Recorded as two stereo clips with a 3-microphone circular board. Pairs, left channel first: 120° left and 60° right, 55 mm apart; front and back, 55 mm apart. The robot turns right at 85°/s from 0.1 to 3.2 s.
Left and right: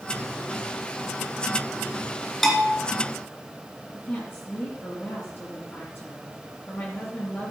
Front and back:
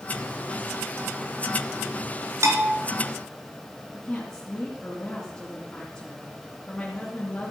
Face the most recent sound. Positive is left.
turn(degrees=70)